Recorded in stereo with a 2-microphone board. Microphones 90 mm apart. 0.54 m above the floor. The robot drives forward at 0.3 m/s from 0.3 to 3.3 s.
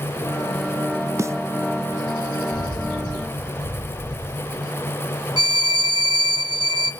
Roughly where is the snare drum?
Right.